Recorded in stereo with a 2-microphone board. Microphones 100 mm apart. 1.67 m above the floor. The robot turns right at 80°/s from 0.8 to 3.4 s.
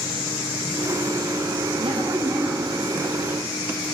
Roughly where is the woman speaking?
Ahead right.